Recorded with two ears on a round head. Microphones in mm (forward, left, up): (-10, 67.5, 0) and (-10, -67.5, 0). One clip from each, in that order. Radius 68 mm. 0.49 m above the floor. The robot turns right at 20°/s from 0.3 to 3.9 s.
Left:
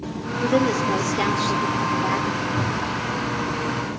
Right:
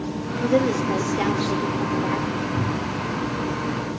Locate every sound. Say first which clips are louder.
0.4 s a woman speaking: left 1 dB; 15° left, 0.9 m; by 2.4 s 55° left, 0.9 m
2.5 s a cupboard door: left 2 dB; 45° right (ahead or behind), 1.2 m; by 3.0 s 40° right (ahead or behind), 1.2 m